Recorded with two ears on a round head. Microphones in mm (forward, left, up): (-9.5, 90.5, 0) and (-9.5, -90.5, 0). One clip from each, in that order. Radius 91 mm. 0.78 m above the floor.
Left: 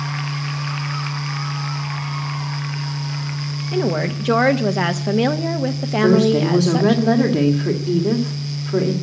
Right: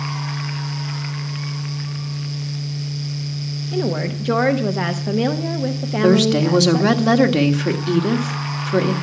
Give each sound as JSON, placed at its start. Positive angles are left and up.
{"t": 3.7, "sound": "a woman speaking", "side_deg": 15, "distance_m": 0.7}
{"t": 6.0, "sound": "a woman speaking", "side_deg": -70, "distance_m": 1.6}